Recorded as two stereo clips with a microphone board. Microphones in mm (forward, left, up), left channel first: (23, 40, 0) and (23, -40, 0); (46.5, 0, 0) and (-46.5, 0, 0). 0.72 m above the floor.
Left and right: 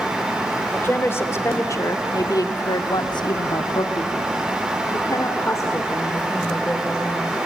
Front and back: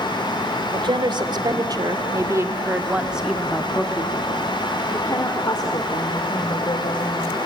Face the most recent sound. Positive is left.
turn(degrees=30)